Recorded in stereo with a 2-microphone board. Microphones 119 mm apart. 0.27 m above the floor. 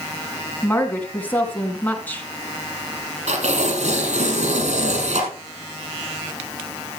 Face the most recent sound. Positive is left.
turn(degrees=-80)